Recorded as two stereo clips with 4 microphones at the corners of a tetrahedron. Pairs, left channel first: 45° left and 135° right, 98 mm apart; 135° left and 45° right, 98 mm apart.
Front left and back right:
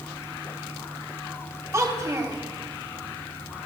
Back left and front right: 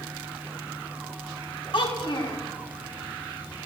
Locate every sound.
1.7 s a child speaking: 165° left, 2.5 m